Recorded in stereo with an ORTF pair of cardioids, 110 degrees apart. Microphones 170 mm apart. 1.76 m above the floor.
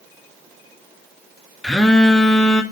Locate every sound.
1.6 s a phone buzzing: 5° left, 1.2 m